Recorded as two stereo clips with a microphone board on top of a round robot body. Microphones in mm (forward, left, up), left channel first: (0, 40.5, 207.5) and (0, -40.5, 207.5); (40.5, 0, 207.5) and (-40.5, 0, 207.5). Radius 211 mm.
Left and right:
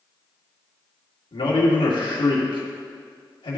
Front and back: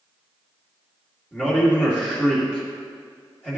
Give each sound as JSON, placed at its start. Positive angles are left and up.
{"t": 1.3, "sound": "a man speaking", "azimuth_deg": 95, "distance_m": 2.0}